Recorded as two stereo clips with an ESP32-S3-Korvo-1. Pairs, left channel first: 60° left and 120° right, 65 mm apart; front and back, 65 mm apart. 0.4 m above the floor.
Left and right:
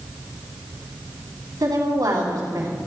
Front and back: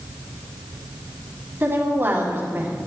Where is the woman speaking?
125° right, 3 m.